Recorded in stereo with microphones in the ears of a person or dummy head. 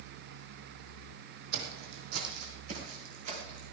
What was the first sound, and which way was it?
Footsteps, 60° right (ahead or behind).